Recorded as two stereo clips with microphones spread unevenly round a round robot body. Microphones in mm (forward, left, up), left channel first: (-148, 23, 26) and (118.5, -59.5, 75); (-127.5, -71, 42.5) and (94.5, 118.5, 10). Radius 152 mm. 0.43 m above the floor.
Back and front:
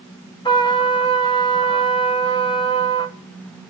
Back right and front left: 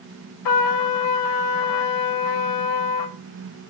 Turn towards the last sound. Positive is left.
turn(degrees=-125)